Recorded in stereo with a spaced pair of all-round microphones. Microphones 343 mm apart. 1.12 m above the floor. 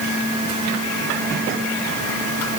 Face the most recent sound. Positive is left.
No sound to turn to.